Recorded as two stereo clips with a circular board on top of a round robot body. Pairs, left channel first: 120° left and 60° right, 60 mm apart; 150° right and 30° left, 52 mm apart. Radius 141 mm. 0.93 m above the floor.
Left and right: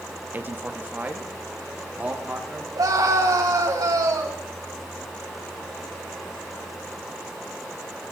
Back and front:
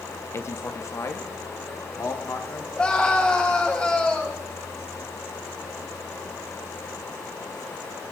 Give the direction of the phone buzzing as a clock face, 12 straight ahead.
No phone buzzing in this recording.